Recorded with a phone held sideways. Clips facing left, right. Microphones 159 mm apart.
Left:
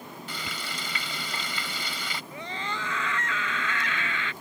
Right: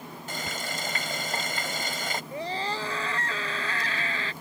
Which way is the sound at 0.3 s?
50° right (ahead or behind).